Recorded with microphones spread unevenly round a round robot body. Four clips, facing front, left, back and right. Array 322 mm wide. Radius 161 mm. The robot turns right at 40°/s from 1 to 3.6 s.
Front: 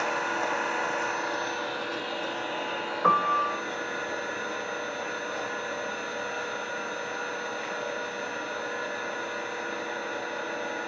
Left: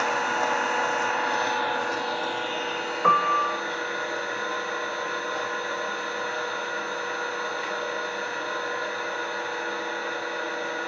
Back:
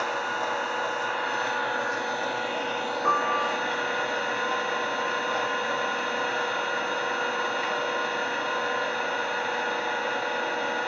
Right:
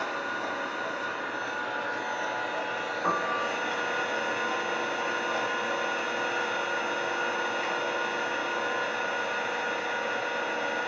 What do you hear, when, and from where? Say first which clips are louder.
0.0 s an engine running: left 7 dB, even; 90° left, 0.8 m; by 10.9 s 165° right, 0.8 m
3.0 s a piano: left 9 dB, front 2 dB; 40° left, 0.5 m; by 3.6 s 60° left, 0.5 m